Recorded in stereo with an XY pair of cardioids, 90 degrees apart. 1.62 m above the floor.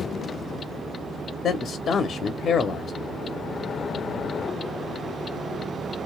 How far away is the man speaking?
About 0.6 m.